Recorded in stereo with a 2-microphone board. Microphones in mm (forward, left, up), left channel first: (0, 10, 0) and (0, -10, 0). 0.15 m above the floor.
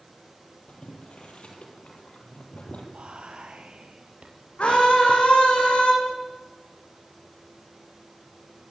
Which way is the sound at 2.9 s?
65° right (ahead or behind).